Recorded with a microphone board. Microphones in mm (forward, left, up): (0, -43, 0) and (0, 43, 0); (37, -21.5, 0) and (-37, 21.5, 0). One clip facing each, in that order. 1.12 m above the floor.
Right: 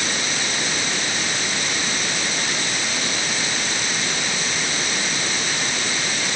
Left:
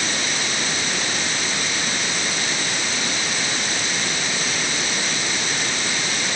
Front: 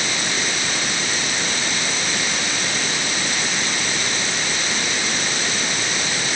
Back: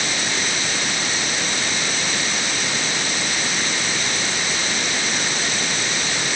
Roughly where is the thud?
No thud in this recording.